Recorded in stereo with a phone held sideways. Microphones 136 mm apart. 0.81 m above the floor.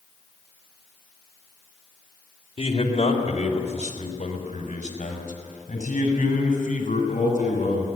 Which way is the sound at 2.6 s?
45° left (ahead or behind).